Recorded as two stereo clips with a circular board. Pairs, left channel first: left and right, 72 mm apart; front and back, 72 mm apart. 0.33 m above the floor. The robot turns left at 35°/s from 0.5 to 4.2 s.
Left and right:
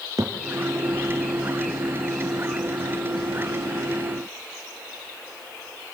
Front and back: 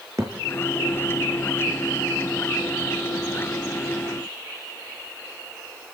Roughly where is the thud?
Behind right.